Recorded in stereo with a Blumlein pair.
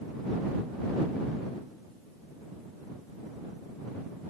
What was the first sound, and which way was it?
Only background noise.